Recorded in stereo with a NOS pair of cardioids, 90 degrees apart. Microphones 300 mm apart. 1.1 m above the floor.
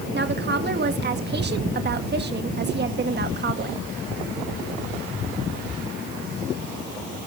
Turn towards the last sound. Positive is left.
turn(degrees=-35)